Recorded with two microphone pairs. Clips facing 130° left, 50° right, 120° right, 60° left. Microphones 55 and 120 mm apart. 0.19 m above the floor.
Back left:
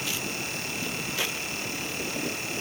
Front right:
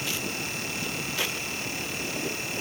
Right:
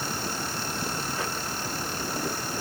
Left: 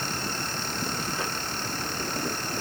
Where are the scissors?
I don't hear scissors.